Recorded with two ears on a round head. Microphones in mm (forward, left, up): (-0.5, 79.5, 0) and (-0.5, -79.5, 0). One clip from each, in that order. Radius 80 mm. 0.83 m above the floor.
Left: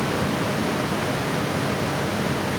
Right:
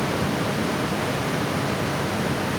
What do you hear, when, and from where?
Only background noise.